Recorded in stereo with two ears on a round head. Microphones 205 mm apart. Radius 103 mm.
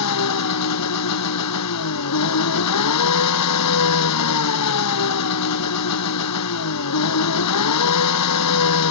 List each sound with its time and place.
0.0 s an engine running: 85° left